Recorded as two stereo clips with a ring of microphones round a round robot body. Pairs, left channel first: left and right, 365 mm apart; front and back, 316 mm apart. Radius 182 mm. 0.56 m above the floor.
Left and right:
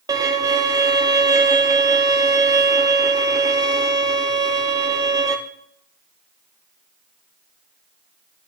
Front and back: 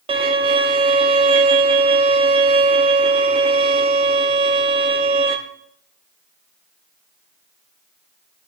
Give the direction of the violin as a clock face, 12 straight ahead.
5 o'clock.